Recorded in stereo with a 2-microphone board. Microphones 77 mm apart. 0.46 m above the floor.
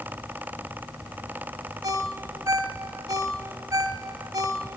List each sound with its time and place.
1.8 s a ringtone: 55° right (ahead or behind), 1.6 m